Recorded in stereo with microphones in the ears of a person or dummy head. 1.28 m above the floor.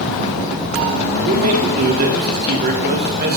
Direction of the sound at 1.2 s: 50° right (ahead or behind).